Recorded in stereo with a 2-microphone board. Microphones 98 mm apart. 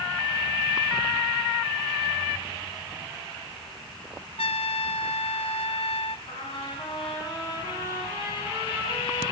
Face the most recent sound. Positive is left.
turn(degrees=60)  # may be behind; listen again after turning